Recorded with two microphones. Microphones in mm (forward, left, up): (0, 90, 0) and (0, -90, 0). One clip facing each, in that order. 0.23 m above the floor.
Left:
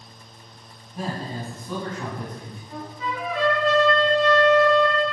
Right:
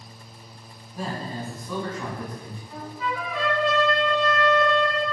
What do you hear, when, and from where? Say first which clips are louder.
0.9 s a man speaking: left 1 dB; 15° left (ahead or behind), 1.5 m
2.7 s a trumpet: even; 35° left (ahead or behind), 1.6 m